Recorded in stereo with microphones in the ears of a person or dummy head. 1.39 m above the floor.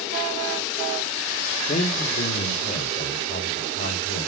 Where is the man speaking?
40° left (ahead or behind), 1.6 m; by 4.3 s 55° left (ahead or behind), 4.5 m.